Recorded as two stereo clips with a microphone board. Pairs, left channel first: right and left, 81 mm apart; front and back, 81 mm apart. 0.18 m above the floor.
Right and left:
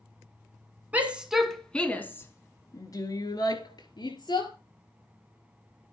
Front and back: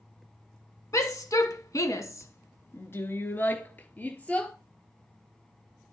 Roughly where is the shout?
Ahead left.